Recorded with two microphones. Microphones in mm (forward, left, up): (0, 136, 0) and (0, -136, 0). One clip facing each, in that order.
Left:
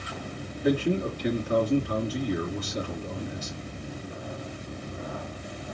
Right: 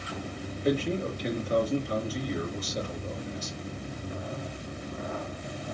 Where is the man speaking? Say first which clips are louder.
Left 3 dB; 65° left (ahead or behind), 2.5 m.